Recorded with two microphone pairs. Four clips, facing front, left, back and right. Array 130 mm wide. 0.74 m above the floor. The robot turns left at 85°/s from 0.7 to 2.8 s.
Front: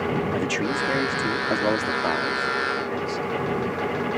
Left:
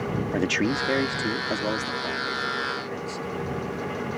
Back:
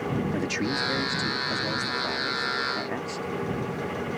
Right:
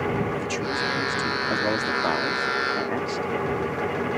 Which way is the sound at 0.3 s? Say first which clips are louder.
Left 2 dB, front 3 dB; 75° left.